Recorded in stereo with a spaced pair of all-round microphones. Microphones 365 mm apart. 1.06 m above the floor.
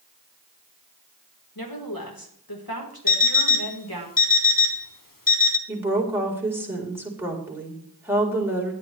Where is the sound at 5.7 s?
5° right (ahead or behind), 4 m.